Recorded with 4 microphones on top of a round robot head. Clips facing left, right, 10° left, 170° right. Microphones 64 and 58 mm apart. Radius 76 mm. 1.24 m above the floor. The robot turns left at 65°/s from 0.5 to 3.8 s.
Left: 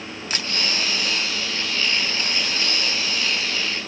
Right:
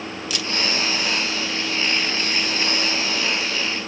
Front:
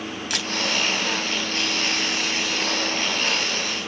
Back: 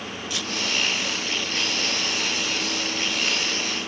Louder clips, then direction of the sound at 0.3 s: Even, front 2 dB; 35° left.